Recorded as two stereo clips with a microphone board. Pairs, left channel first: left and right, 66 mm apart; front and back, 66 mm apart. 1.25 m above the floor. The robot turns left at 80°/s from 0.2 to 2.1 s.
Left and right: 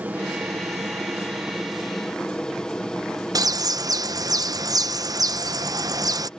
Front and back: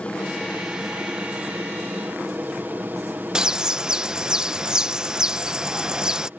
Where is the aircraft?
50° right; by 6.4 s 155° left.